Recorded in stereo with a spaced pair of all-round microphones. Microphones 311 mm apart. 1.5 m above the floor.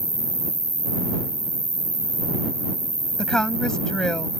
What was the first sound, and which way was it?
An insect, 75° right (ahead or behind).